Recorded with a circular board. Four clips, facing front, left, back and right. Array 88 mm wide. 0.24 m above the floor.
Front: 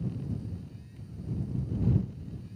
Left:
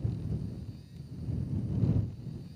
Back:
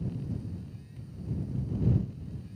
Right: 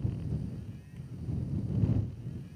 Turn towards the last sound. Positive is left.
No sound to turn to.